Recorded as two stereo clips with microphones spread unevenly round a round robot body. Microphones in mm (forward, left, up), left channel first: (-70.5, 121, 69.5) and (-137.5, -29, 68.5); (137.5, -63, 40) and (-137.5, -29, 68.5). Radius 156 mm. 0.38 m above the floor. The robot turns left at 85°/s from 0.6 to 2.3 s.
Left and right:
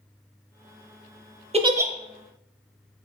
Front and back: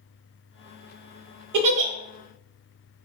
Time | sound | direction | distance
1.5 | a giggle | 165° right | 0.7 m